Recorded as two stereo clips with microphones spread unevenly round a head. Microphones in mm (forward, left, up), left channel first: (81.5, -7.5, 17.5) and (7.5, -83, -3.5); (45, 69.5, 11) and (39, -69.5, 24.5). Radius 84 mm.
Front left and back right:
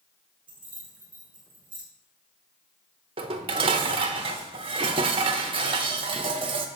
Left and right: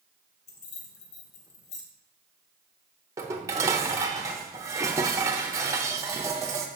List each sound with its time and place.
0.5 s keys jangling: 140° left, 1.1 m
3.2 s dishes clattering: 140° right, 0.6 m